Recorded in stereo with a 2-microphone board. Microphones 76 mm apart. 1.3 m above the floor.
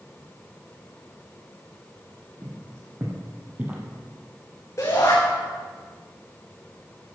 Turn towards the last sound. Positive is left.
turn(degrees=45)  # may be behind; listen again after turning